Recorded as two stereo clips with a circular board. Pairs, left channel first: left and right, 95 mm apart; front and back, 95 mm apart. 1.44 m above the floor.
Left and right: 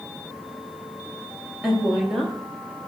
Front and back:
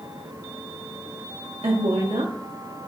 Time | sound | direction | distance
1.6 | a woman speaking | 175° left | 0.9 m